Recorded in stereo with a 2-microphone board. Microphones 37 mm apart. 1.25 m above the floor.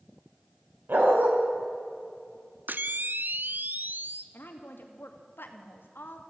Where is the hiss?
No hiss in this recording.